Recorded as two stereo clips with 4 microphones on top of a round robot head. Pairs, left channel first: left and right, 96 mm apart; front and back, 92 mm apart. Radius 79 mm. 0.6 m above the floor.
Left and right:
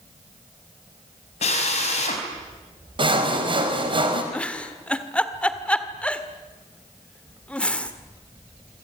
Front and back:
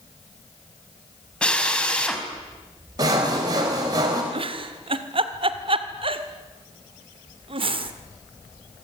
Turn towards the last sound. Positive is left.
turn(degrees=165)